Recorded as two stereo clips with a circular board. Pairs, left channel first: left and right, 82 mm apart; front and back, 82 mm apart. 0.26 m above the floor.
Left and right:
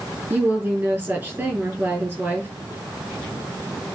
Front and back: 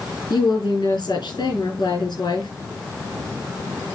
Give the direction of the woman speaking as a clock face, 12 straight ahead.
1 o'clock.